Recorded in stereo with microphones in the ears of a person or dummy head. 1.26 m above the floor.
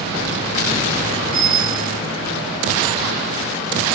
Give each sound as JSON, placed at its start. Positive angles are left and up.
{"t": 1.3, "sound": "a bicycle bell", "side_deg": 0, "distance_m": 6.5}